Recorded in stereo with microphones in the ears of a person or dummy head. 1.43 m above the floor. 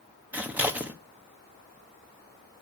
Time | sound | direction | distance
0.3 | scissors | 5° right (ahead or behind) | 0.9 m